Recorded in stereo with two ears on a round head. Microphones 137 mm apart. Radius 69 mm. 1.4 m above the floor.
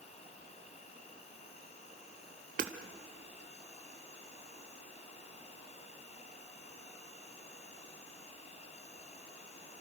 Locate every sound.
0.0 s an insect: 45° left (ahead or behind), 2.5 m
2.6 s hammering: 55° right (ahead or behind), 1.6 m